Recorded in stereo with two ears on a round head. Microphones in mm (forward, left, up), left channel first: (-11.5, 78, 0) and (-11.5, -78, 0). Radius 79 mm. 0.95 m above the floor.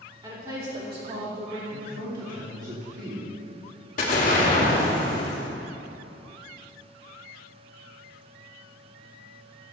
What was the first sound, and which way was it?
A woman speaking, 20° right (ahead or behind).